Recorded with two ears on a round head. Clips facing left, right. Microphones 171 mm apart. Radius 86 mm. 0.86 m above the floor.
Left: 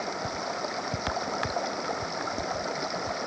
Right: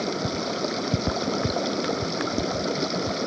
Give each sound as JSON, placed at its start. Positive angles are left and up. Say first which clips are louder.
{"t": 0.0, "sound": "running water", "louder": "right 6 dB", "side_deg": -40}